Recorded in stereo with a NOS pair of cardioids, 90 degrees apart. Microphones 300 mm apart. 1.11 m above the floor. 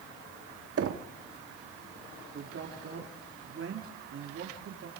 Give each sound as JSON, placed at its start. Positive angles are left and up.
{"t": 0.8, "sound": "knocking", "azimuth_deg": -50, "distance_m": 1.7}
{"t": 2.3, "sound": "a man speaking", "azimuth_deg": -45, "distance_m": 3.5}